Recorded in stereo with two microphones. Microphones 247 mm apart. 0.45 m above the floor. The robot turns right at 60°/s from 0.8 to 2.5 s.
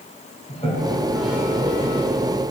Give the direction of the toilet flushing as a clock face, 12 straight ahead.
7 o'clock.